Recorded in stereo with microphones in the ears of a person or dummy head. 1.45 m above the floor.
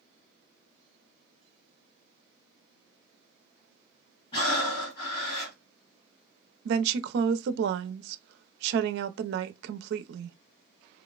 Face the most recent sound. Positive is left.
turn(degrees=-65)  # may be behind; listen again after turning